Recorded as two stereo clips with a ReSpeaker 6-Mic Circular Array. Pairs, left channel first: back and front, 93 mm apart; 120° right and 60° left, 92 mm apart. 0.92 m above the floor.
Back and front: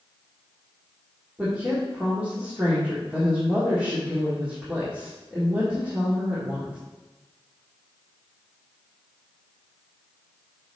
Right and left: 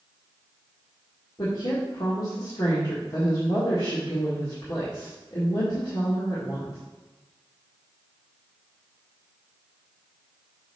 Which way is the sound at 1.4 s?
75° right.